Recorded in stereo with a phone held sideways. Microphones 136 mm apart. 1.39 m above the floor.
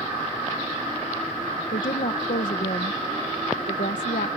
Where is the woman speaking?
80° left.